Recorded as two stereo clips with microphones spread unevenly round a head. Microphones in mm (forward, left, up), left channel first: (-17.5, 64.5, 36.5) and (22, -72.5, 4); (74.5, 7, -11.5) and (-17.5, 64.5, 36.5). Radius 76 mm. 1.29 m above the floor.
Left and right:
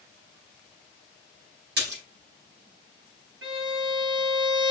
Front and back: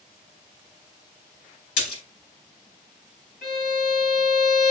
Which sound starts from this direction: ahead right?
A splash, at 1.8 s.